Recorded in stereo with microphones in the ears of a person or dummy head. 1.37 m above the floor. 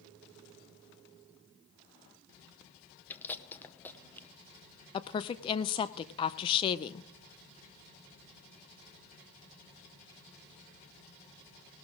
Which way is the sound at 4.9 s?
30° left (ahead or behind).